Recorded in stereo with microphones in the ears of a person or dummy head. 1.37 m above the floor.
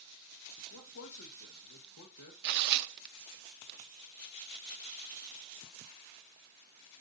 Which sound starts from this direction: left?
A man speaking, at 0.7 s.